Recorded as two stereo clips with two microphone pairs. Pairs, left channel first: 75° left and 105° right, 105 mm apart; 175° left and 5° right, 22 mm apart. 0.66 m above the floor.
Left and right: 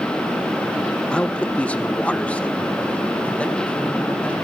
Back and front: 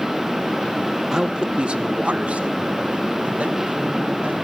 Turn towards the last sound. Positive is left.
turn(degrees=-5)